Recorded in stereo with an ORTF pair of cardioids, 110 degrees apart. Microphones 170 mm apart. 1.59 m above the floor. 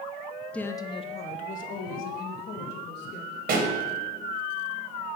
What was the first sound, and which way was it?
A woman speaking, 5° left.